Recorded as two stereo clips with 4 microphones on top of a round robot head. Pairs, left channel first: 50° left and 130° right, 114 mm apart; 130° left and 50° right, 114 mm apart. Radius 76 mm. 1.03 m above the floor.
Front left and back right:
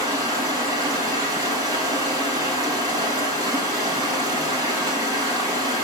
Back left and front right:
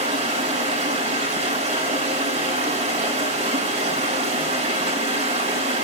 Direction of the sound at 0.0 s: 70° right.